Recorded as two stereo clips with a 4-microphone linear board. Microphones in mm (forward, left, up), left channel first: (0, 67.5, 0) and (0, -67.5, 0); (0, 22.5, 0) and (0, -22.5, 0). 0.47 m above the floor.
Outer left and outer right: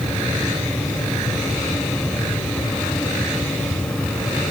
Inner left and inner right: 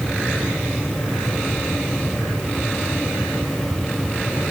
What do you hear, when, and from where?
Only background noise.